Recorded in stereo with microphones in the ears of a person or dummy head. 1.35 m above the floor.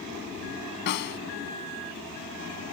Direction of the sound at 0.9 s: 50° left (ahead or behind).